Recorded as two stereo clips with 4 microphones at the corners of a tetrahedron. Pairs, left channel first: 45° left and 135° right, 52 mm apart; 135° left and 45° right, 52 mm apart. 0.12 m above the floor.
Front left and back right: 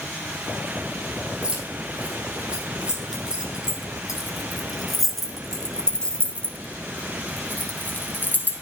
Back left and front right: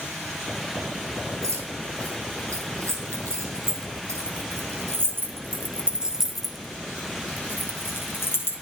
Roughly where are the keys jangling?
Ahead right.